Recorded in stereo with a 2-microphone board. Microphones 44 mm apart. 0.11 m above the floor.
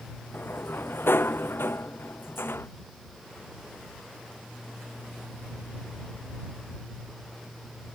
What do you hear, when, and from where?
0.3 s a sliding door: 60° left (ahead or behind)